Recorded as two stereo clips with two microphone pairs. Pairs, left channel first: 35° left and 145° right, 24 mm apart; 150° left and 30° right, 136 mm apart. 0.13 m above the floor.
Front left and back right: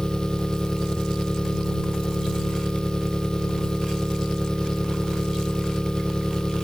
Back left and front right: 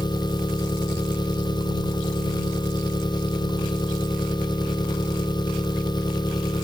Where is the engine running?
90° left.